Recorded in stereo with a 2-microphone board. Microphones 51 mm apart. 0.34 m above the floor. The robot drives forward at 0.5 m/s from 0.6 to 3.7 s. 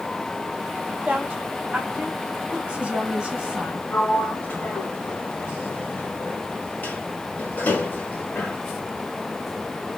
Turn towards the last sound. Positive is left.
turn(degrees=35)  # may be behind; listen again after turning